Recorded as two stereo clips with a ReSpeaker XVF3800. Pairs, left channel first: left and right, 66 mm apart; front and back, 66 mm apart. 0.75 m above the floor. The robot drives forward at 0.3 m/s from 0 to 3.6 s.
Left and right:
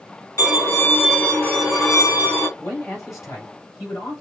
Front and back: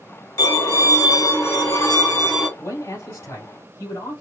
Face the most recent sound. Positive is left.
turn(degrees=50)